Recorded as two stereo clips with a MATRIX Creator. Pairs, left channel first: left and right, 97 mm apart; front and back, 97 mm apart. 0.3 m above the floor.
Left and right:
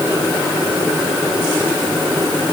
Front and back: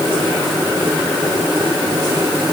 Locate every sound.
Only background noise.